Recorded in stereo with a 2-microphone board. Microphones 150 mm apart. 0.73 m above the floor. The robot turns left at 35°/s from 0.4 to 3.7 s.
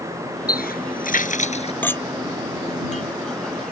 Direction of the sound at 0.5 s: 85° left.